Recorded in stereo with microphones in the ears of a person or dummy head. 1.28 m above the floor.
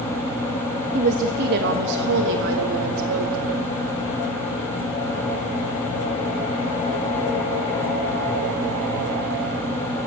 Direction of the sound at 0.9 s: 40° right (ahead or behind).